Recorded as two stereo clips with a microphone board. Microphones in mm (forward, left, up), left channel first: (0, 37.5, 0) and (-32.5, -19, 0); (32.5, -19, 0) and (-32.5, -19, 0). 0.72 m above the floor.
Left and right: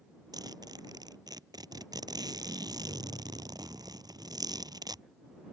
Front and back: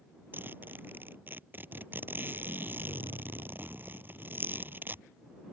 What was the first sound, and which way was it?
A zipper, 120° right.